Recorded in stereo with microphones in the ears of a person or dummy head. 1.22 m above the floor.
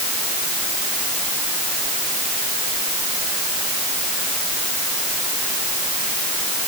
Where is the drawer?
No drawer in this recording.